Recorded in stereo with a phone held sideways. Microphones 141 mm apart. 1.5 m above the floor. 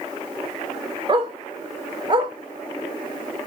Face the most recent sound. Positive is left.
turn(degrees=-35)  # may be behind; listen again after turning